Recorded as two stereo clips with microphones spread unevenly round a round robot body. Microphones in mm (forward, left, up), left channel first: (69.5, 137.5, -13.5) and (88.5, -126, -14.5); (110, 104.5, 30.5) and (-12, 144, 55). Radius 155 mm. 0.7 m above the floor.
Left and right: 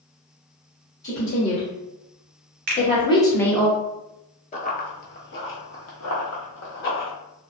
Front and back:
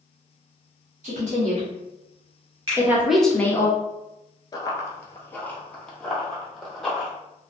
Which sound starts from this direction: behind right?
A finger snap, at 2.7 s.